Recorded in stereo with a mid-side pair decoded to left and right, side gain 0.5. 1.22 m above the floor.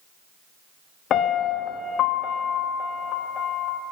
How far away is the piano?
About 0.5 m.